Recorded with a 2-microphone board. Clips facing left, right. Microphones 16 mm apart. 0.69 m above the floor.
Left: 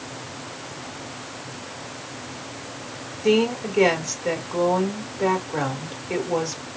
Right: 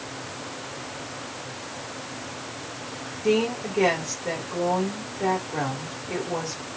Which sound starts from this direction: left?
A woman speaking, at 3.2 s.